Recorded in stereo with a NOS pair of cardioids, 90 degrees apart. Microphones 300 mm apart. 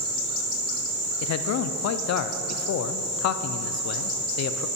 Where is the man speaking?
60° left, 0.6 m.